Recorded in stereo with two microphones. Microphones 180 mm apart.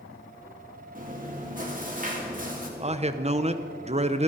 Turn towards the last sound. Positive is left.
turn(degrees=-35)  # may be behind; listen again after turning